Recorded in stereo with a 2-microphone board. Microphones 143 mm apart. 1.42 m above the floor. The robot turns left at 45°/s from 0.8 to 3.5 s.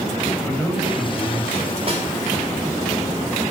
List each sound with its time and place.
0.4 s a man speaking: 10° left, 7.5 m; by 1.8 s 35° right, 7.5 m
1.9 s a snare drum: 40° right (ahead or behind), 4 m; by 2.1 s 50° right (ahead or behind), 4 m